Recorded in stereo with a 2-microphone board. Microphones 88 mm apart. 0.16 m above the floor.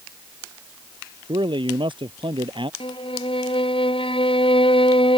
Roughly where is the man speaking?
Right.